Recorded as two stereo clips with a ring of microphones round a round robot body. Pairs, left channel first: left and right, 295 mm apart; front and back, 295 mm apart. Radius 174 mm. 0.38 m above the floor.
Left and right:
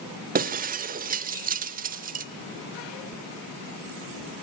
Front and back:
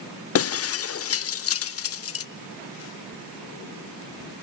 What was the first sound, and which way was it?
Breaking glass, 35° right.